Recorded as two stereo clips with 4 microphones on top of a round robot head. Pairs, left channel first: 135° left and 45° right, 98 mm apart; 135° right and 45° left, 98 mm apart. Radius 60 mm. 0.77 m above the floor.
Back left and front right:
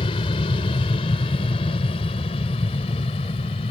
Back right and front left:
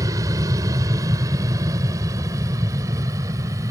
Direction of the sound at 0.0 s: 100° left.